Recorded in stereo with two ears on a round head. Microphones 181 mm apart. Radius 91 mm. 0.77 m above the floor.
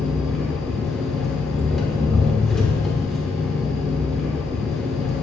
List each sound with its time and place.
0.0 s an engine running: centre (ahead or behind), 0.9 m